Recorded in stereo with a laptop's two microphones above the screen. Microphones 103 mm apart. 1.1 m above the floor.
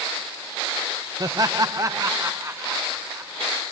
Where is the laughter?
35° right (ahead or behind); by 3.5 s 25° right (ahead or behind).